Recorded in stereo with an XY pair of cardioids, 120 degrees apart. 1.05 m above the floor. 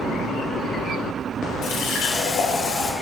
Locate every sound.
1.6 s a running tap: 55° left, 2 m